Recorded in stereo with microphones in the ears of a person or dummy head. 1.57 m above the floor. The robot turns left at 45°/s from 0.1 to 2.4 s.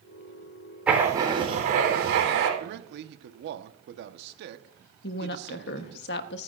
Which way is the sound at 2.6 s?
65° right (ahead or behind).